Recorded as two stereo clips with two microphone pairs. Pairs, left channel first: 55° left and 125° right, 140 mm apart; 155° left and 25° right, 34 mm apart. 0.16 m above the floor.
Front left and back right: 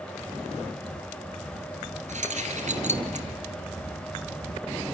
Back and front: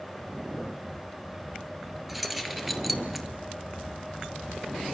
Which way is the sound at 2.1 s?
110° right.